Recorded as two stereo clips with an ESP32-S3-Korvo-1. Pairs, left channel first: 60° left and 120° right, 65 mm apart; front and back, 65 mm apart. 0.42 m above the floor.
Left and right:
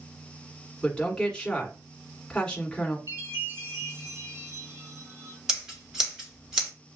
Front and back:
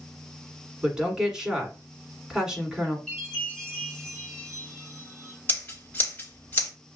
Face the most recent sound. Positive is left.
turn(degrees=-40)